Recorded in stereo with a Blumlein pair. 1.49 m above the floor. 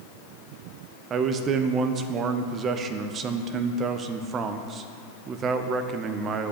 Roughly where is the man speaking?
Ahead right.